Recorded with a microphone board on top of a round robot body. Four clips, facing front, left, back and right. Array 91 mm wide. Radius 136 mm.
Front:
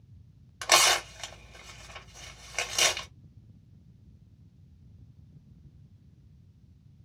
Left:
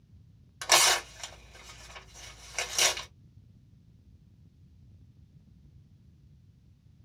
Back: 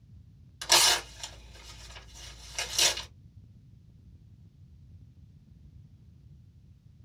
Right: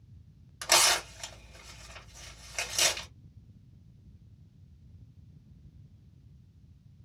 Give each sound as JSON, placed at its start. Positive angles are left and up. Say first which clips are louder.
{"t": 0.6, "sound": "tearing paper", "louder": "left 2 dB, front 3 dB", "azimuth_deg": 15, "distance_m": 1.8}